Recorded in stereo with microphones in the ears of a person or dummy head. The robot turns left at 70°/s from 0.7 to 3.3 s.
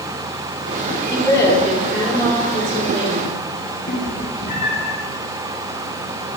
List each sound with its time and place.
1.1 s a woman speaking: 40° left, 3 m; by 3.4 s 115° right, 3 m
3.9 s a cat meowing: 35° left (ahead or behind), 1.9 m